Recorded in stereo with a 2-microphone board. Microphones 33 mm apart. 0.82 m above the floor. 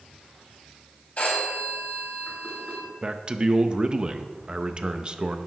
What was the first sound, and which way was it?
A phone ringing, 50° left (ahead or behind).